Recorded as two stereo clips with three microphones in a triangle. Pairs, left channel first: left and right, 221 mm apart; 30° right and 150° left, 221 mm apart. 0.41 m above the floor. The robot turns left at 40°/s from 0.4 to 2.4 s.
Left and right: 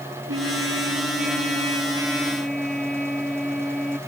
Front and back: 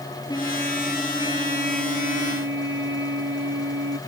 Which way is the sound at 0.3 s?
100° right.